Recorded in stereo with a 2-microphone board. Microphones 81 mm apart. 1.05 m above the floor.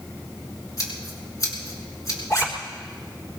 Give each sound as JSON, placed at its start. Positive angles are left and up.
{"t": 0.8, "sound": "scissors", "side_deg": 40, "distance_m": 5.0}
{"t": 2.3, "sound": "a zipper", "side_deg": 45, "distance_m": 3.5}